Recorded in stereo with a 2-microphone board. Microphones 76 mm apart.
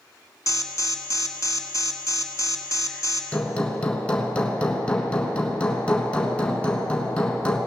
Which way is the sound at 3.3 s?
15° left (ahead or behind).